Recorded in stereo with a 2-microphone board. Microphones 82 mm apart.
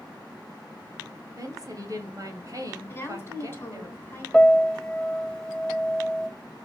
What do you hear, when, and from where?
1.4 s a woman speaking: 45° right (ahead or behind), 2.0 m
2.9 s a woman speaking: 30° left (ahead or behind), 2.5 m
4.3 s a piano: 10° left (ahead or behind), 0.6 m